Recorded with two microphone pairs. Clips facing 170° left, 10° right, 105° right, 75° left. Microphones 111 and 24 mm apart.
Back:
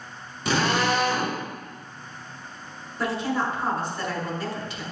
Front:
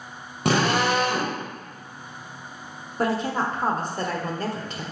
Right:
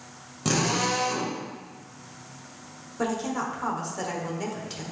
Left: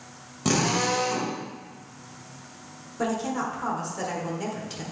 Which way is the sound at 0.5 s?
5° right.